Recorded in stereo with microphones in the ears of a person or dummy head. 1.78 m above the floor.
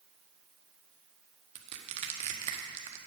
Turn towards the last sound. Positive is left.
turn(degrees=-50)  # may be behind; listen again after turning